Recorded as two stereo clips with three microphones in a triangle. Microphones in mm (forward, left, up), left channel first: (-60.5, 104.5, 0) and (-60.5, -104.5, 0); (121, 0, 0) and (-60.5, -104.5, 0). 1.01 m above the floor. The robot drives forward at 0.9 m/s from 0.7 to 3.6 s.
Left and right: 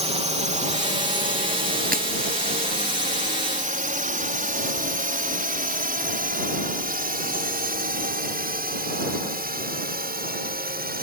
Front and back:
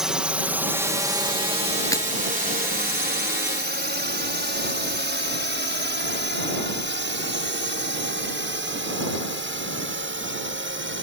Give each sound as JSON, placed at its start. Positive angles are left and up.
{"t": 0.0, "sound": "a drone", "azimuth_deg": -65}
{"t": 1.9, "sound": "breaking glass", "azimuth_deg": -45}